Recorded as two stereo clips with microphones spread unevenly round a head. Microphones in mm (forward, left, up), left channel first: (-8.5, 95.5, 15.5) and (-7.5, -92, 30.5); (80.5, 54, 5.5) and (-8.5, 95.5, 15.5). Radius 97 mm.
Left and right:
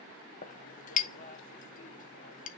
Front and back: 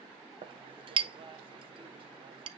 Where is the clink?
140° left, 0.9 m.